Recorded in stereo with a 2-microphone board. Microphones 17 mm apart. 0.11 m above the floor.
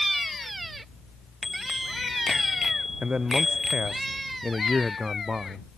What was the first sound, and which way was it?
A bicycle bell, 10° right (ahead or behind).